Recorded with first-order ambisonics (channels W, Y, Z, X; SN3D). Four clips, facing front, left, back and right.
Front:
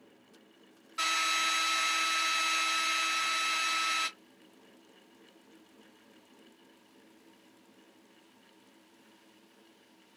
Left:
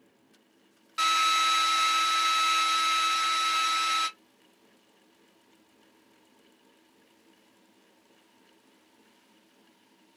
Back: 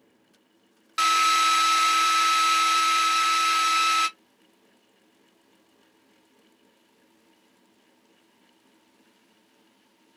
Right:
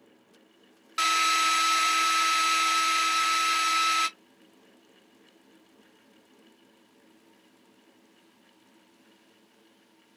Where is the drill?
160° right, 0.8 m.